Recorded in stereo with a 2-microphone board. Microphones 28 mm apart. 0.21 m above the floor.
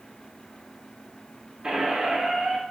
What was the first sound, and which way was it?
A squeak, 30° right (ahead or behind).